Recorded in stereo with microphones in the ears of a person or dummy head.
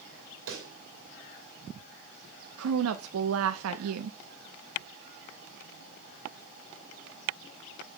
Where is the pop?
70° right (ahead or behind), 2.5 m.